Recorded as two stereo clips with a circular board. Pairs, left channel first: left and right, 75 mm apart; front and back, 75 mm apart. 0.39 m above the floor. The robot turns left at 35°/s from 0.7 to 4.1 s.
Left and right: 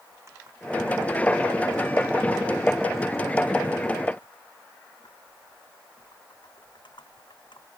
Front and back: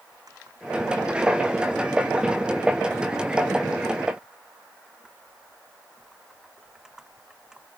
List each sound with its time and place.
0.1 s typing on a keyboard: 140° right; by 7.7 s 100° left